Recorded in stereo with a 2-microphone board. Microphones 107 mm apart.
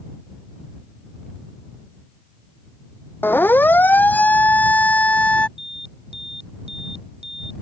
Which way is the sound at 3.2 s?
20° left (ahead or behind).